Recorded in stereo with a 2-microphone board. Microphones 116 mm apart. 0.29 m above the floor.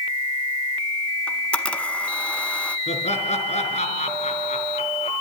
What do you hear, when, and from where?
1.3 s a camera shutter: 10° left (ahead or behind), 1.2 m
2.9 s laughter: 70° left (ahead or behind), 4.5 m